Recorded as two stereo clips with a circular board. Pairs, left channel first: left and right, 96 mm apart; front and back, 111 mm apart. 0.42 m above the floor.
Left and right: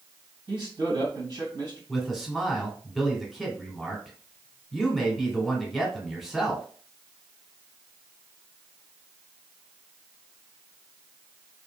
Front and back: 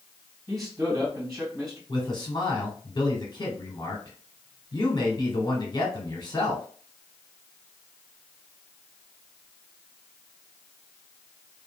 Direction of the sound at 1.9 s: Straight ahead.